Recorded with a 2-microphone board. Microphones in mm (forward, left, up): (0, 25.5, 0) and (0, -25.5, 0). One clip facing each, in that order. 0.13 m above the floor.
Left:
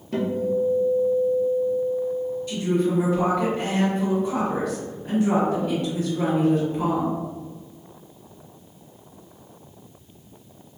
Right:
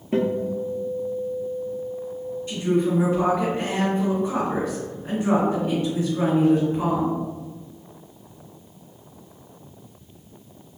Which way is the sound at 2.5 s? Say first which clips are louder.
Right 2 dB; 25° right (ahead or behind).